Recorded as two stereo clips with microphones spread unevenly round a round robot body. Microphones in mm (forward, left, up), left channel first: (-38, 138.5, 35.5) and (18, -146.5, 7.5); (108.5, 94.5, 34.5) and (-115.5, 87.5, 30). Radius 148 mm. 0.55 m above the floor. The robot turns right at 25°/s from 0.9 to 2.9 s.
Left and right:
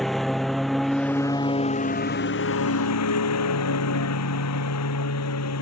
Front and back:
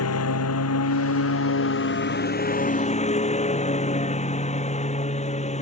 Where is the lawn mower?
10° left; by 5.6 s 60° left.